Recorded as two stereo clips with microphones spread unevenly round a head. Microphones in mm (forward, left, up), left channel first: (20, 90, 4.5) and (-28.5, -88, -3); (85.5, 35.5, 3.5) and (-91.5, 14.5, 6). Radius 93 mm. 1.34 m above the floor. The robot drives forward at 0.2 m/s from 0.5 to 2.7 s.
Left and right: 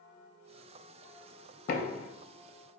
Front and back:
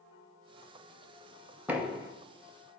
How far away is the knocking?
About 0.6 m.